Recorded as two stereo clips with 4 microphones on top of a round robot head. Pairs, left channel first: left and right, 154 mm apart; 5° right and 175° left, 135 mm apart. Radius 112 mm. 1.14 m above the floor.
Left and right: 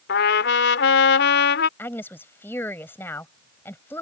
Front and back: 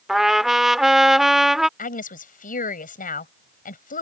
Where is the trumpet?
85° left.